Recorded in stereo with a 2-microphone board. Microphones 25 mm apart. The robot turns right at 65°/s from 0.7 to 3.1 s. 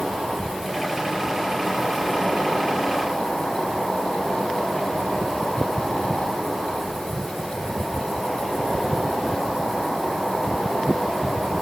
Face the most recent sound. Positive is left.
turn(degrees=-15)